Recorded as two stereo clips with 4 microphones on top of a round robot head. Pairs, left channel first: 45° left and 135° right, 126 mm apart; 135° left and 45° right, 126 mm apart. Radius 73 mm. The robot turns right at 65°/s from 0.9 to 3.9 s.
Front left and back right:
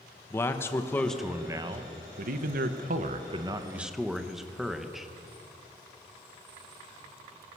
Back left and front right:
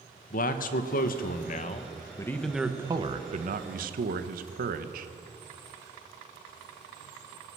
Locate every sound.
0.3 s a man speaking: 120° left, 1.5 m; by 5.1 s 45° right, 1.5 m